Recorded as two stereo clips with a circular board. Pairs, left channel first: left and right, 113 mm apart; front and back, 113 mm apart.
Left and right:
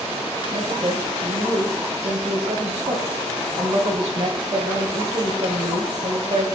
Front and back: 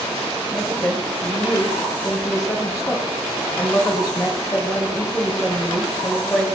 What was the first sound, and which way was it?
A woman speaking, 55° right.